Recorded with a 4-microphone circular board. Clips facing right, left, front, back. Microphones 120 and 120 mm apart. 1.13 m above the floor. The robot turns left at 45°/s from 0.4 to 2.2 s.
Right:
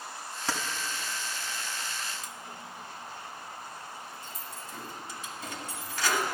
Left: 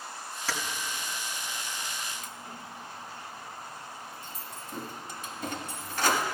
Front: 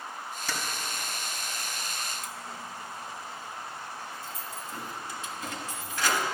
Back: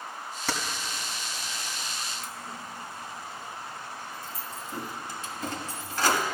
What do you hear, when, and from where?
0.5 s keys jangling: 160° right, 1.5 m; by 6.2 s 125° left, 1.5 m